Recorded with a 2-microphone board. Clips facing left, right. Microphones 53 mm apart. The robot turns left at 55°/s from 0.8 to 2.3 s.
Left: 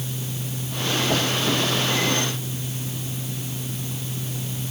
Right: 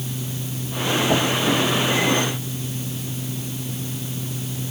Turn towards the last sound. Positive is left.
No sound to turn to.